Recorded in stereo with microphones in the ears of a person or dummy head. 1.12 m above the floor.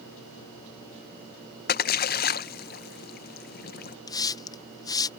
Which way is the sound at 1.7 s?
40° left (ahead or behind).